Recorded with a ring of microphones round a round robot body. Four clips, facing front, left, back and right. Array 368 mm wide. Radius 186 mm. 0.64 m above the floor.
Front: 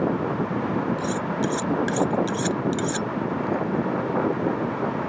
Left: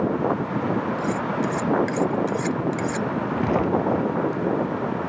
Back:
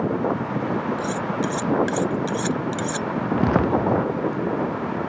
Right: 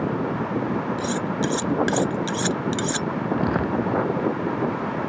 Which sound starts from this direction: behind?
Footsteps, at 3.3 s.